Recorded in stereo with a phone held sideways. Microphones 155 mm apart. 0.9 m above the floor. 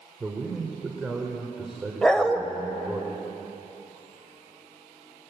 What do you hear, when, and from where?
0.2 s a man speaking: 5° right (ahead or behind), 2.5 m
2.0 s a dog barking: 5° left (ahead or behind), 1.4 m